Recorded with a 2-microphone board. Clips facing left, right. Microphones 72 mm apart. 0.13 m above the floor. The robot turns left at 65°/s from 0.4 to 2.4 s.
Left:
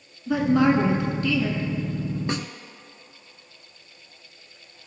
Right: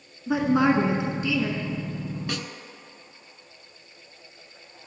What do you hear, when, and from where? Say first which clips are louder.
0.3 s a woman speaking: left 1 dB; 25° right (ahead or behind), 1.2 m; by 1.7 s 10° right (ahead or behind), 1.2 m
2.3 s a snare drum: left 4 dB; 30° left (ahead or behind), 0.7 m